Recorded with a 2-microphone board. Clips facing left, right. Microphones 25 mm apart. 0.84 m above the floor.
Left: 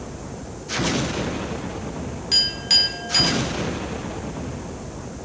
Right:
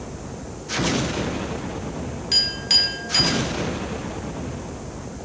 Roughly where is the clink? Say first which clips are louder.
Left 1 dB; centre.